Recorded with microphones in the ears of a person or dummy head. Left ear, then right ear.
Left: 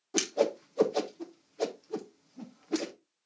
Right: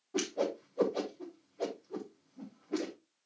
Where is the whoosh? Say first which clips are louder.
Left 5 dB; 75° left (ahead or behind), 1.1 m.